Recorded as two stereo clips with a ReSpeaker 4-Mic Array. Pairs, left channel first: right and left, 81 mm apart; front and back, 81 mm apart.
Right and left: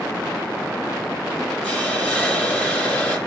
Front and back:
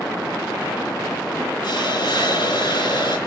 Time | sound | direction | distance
1.6 | a hiss | 15° right | 3 m